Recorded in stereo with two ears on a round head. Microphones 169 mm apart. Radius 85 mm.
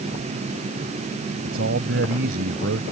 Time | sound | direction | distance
1.4 | a man speaking | 65° right (ahead or behind) | ?